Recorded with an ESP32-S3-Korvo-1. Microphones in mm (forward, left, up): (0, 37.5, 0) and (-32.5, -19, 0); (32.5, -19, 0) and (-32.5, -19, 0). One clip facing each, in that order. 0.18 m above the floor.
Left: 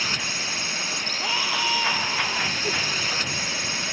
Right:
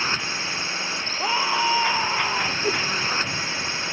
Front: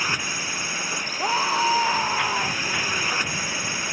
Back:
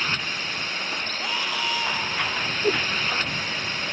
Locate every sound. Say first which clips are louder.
0.0 s a drone: right 2 dB, front 1 dB; 75° right
1.2 s a scream: right 5 dB, front 9 dB; 55° right
2.6 s a whoosh: right 3 dB, back 4 dB; straight behind